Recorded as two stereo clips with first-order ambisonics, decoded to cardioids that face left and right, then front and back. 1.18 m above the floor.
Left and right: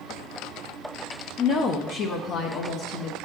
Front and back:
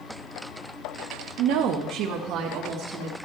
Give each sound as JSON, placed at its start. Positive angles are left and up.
{"t": 1.4, "sound": "a woman speaking", "azimuth_deg": 155, "distance_m": 0.7}